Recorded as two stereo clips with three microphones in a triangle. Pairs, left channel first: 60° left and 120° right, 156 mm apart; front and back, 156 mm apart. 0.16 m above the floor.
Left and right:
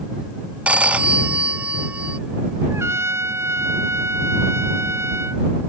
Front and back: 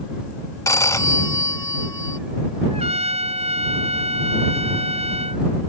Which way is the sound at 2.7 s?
175° left.